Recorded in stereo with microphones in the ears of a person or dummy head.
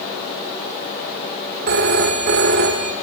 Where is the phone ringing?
60° right (ahead or behind), 2.5 m.